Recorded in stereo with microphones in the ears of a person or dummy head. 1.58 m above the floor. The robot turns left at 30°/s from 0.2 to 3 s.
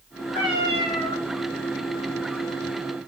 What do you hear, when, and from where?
0.3 s a cat meowing: 25° left (ahead or behind), 1.2 m